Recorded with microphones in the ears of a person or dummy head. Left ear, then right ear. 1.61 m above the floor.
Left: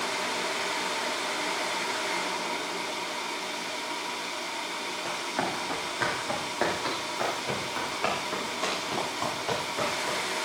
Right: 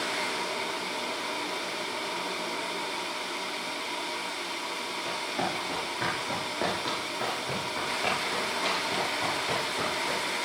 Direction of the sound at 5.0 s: 35° left (ahead or behind).